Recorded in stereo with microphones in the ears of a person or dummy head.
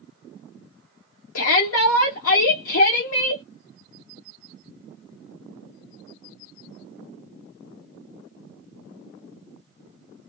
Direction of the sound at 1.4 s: 70° left (ahead or behind).